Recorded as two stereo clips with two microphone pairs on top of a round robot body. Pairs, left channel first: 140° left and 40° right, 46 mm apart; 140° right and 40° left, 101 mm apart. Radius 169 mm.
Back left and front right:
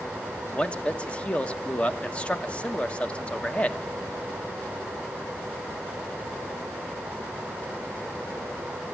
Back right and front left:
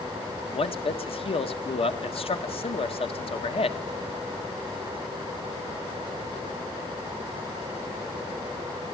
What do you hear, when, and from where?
0.5 s a man speaking: 155° right, 1.9 m